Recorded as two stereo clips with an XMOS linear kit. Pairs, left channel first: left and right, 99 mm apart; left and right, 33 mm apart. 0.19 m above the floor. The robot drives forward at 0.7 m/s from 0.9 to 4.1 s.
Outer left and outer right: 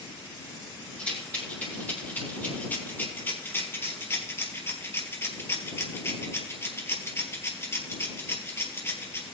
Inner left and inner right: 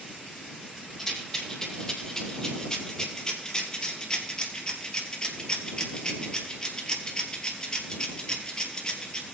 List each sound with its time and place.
1.0 s a rattle: 15° left (ahead or behind), 4.5 m; by 9.3 s 25° left (ahead or behind), 2.5 m